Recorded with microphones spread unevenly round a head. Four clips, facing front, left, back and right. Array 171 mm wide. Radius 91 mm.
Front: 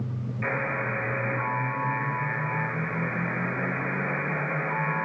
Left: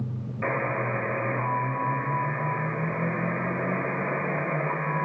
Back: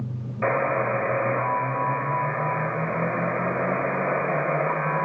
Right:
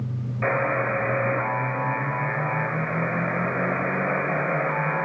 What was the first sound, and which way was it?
A buzzer, 170° right.